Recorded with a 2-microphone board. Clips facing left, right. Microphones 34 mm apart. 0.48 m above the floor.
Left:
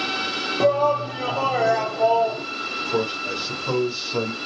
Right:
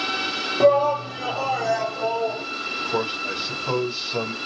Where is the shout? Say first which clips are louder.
Right 2 dB; 5° right (ahead or behind), 0.9 m; by 2.4 s 50° left (ahead or behind), 1.6 m.